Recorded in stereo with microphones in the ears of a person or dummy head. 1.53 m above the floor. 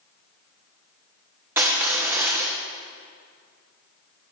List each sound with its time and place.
1.6 s crushing: 10° right (ahead or behind), 1.2 m